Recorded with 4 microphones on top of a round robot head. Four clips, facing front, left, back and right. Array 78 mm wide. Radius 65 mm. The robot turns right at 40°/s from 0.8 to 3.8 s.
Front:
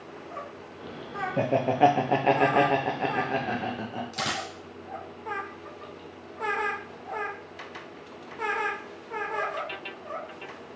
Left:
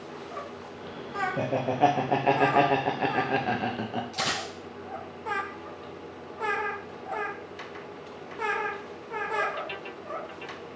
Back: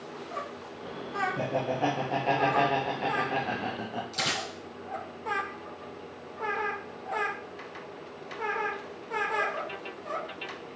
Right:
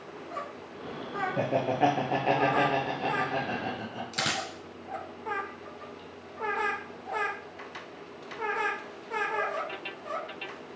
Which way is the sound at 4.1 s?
85° right.